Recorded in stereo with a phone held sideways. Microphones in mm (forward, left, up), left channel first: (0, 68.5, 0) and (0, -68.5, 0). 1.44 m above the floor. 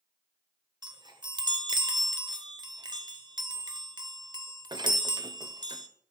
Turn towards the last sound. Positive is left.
turn(degrees=-30)  # may be behind; listen again after turning